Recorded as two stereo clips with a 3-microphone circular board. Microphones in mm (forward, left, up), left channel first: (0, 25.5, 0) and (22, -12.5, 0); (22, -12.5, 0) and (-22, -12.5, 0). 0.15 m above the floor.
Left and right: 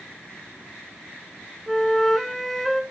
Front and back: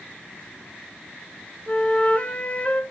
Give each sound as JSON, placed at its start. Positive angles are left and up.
{"t": 1.7, "sound": "a flute", "azimuth_deg": 35, "distance_m": 1.0}